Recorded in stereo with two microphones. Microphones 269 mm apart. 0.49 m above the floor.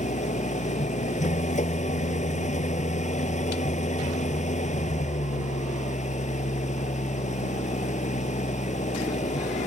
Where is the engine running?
25° left (ahead or behind).